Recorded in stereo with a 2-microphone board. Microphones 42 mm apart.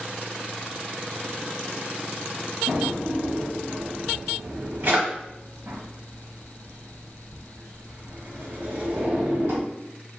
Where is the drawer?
55° right (ahead or behind), 0.9 m.